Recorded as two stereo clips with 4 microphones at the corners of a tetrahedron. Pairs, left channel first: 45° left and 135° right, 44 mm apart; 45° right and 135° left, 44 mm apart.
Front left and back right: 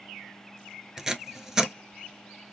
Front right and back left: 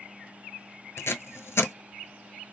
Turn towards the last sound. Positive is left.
turn(degrees=-55)